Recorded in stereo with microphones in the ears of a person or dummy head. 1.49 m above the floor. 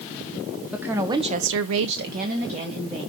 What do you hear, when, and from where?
0.7 s a woman speaking: 5° right (ahead or behind), 1.5 m; by 3.1 s 30° right (ahead or behind), 2.5 m